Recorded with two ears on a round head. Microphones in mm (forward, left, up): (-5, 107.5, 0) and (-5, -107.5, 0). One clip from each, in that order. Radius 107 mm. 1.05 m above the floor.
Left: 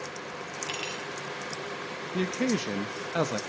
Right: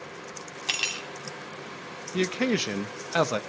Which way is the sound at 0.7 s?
55° right (ahead or behind).